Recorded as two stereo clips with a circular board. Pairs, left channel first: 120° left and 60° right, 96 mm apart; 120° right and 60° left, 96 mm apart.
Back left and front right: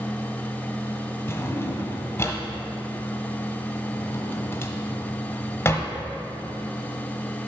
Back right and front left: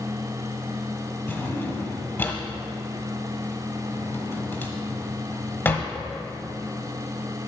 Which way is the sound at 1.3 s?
175° left.